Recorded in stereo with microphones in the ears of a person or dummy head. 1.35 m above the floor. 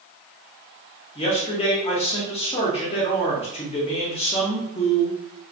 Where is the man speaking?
25° left (ahead or behind), 0.7 m.